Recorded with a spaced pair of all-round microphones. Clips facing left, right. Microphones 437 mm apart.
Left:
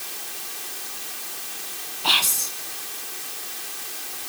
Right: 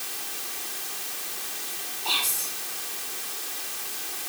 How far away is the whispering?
About 1.8 m.